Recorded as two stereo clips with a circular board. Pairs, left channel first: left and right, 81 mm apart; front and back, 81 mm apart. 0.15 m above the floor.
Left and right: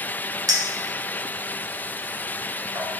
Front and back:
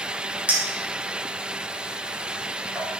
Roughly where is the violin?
No violin in this recording.